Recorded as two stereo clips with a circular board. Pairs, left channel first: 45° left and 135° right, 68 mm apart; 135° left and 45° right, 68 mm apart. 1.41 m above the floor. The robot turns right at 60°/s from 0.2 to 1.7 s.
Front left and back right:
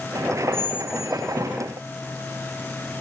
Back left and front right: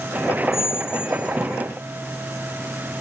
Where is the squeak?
80° right, 1.4 m; by 1.6 s 15° right, 1.4 m.